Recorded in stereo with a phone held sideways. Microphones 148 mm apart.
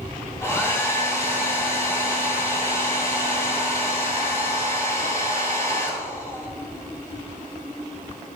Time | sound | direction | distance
0.4 | a hair dryer | 20° left (ahead or behind) | 3 m